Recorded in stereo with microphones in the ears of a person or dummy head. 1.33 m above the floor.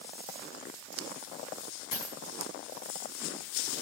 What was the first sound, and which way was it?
A dropped coin, 50° left (ahead or behind).